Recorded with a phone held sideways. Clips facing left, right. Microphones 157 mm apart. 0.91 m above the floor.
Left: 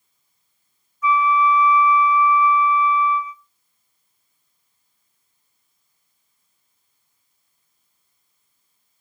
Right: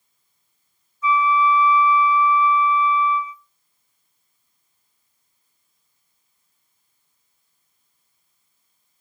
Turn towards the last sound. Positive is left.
turn(degrees=-30)  # may be behind; listen again after turning